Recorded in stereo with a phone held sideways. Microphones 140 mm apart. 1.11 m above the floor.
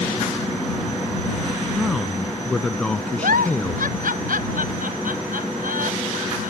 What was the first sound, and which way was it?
A man speaking, centre (ahead or behind).